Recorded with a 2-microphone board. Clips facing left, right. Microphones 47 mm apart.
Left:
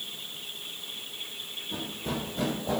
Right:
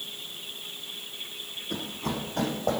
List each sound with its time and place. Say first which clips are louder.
1.7 s running footsteps: right 2 dB; 70° right (ahead or behind), 4 m; by 2.8 s 65° right (ahead or behind), 4.5 m